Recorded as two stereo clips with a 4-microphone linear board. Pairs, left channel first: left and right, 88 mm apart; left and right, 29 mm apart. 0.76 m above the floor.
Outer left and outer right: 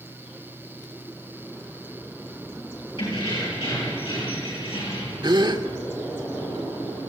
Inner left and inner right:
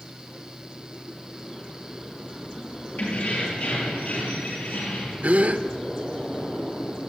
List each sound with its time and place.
3.0 s keys jangling: 65° left (ahead or behind), 9 m
5.2 s a gasp: 55° right (ahead or behind), 1.2 m